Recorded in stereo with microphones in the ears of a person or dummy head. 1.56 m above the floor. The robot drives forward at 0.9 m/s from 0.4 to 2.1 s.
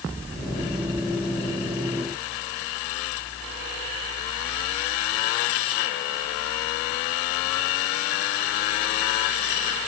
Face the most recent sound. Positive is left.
No sound to turn to.